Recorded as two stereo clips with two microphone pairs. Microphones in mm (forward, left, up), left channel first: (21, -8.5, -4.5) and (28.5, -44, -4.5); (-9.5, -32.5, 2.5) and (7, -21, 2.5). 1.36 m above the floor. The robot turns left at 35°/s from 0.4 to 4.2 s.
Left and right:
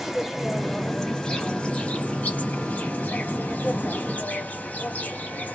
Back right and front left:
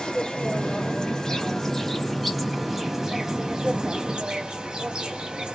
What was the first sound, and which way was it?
An insect, 160° right.